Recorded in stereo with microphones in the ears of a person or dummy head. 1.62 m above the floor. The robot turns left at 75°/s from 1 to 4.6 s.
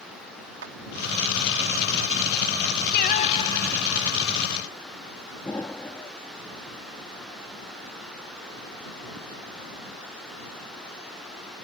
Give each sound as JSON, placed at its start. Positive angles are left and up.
{"t": 0.6, "sound": "a clap", "side_deg": -65}
{"t": 2.9, "sound": "singing", "azimuth_deg": 60}
{"t": 5.5, "sound": "an explosion", "side_deg": 10}